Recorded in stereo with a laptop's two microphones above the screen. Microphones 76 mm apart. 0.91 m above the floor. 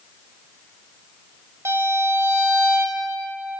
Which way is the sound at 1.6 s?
40° right (ahead or behind).